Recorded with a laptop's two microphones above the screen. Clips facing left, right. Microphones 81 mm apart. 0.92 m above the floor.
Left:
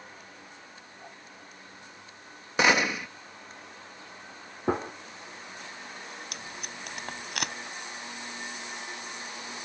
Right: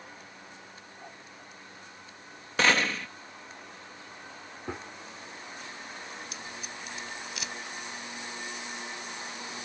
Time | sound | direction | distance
2.6 | a gunshot | 15° left (ahead or behind) | ?
4.7 | a gunshot | 55° left (ahead or behind) | ?
6.3 | tape being pulled | 65° left (ahead or behind) | ?